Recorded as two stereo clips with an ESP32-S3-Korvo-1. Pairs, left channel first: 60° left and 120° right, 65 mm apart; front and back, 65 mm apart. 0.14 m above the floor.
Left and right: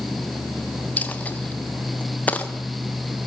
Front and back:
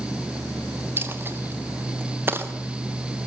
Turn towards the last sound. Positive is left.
turn(degrees=125)